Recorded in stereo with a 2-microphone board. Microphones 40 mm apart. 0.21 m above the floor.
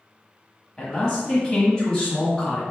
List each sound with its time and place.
0.8 s a man speaking: 15° left (ahead or behind), 1.0 m